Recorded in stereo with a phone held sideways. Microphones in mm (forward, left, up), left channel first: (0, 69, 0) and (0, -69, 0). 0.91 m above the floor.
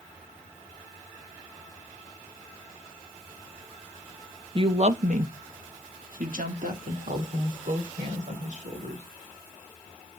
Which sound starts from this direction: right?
A woman speaking, at 4.5 s.